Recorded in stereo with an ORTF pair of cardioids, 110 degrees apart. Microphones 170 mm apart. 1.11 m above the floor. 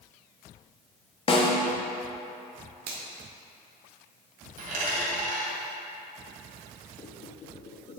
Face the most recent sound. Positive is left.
turn(degrees=40)